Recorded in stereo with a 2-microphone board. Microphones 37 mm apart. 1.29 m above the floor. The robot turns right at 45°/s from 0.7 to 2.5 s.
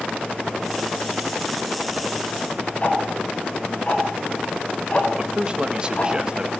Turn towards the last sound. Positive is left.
turn(degrees=-25)  # may be behind; listen again after turning